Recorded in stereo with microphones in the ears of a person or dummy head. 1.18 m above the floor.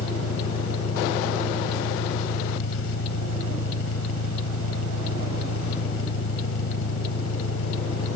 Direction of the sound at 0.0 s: 85° left.